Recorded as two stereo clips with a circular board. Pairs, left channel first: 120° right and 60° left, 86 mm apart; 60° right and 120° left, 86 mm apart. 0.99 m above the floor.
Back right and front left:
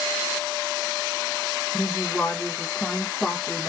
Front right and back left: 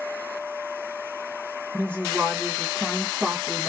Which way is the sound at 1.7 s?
Straight behind.